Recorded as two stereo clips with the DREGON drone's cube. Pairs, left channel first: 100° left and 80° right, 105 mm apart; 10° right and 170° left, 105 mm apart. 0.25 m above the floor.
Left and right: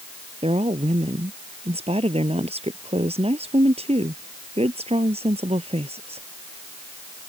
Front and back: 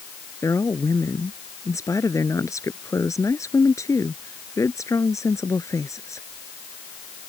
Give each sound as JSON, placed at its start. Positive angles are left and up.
{"t": 0.4, "sound": "a woman speaking", "azimuth_deg": -70}